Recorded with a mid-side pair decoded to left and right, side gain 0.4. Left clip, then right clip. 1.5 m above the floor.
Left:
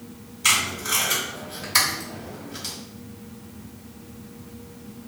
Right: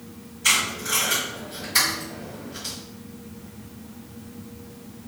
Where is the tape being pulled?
60° left, 1.8 m.